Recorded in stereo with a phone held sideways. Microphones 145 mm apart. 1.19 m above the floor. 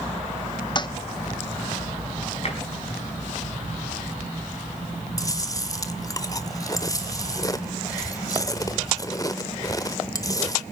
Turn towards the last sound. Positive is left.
turn(degrees=25)  # may be behind; listen again after turning